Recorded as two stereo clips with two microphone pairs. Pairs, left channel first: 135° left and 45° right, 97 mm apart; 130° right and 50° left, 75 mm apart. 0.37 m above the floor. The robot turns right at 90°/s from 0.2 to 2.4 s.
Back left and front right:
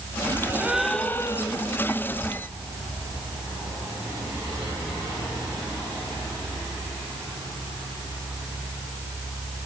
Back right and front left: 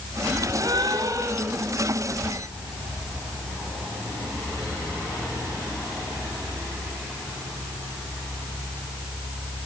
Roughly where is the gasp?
Ahead.